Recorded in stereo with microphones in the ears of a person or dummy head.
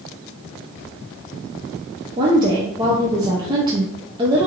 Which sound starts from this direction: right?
A woman speaking, at 2.2 s.